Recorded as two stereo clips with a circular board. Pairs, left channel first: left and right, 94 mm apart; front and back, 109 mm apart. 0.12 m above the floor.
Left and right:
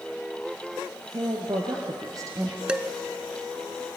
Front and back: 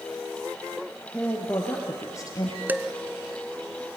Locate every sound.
1.1 s a woman speaking: 75° right, 3 m; by 2.6 s 35° right, 2 m
2.7 s dishes clattering: 145° right, 1.0 m